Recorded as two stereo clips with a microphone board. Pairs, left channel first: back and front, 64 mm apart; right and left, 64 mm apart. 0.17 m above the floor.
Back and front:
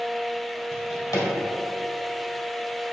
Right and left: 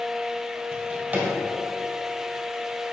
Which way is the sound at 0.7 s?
160° left.